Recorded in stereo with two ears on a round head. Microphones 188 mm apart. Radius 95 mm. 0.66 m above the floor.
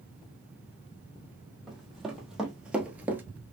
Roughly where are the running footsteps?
Centre.